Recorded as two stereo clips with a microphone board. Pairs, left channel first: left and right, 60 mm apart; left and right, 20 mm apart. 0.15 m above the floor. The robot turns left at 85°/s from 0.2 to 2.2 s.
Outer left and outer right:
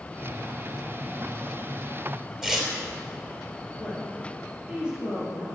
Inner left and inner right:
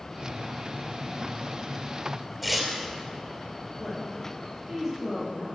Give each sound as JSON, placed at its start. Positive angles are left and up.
{"t": 2.4, "sound": "tearing paper", "side_deg": -10, "distance_m": 3.0}
{"t": 3.8, "sound": "a woman speaking", "side_deg": -15, "distance_m": 4.0}